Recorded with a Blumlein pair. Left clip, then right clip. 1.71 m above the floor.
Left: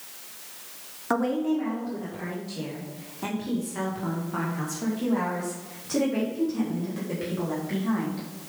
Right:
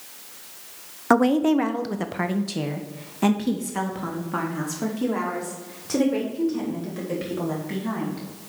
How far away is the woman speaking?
About 0.7 m.